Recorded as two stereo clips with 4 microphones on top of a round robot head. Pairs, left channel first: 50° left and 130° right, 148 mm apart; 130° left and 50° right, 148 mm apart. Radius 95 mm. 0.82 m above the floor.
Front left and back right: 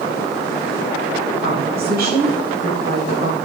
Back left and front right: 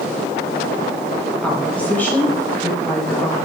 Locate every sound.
1.4 s a woman speaking: 145° right, 5.5 m; by 3.4 s 160° right, 8 m